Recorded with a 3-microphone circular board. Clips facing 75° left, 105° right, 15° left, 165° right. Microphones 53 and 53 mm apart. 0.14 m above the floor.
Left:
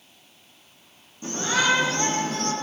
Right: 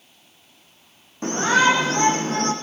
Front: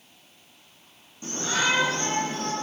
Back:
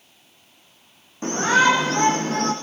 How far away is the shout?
About 6 m.